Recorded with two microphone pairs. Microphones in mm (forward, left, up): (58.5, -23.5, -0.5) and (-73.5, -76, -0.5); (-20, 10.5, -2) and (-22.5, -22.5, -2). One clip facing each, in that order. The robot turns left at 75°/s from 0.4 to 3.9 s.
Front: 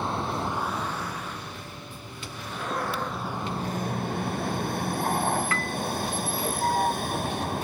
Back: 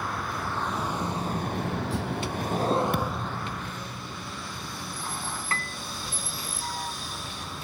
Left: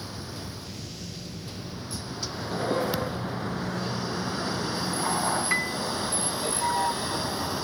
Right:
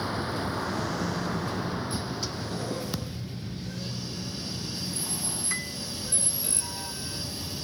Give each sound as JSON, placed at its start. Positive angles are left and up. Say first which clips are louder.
{"t": 0.0, "sound": "a vehicle", "louder": "front 4 dB, right 8 dB", "azimuth_deg": -40}
{"t": 2.9, "sound": "a thud", "louder": "back 1 dB, left 6 dB", "azimuth_deg": 170}
{"t": 5.5, "sound": "a piano", "louder": "front 5 dB, left 8 dB", "azimuth_deg": 145}